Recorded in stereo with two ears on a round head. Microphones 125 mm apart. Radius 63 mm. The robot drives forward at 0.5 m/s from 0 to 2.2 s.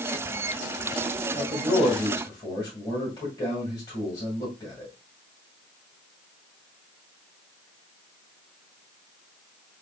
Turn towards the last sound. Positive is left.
turn(degrees=25)  # may be behind; listen again after turning